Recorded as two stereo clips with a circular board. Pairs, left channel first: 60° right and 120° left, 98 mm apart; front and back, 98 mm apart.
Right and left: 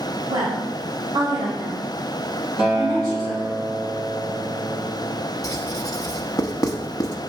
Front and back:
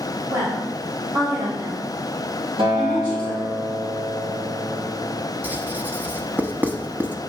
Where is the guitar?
155° right, 2.5 m.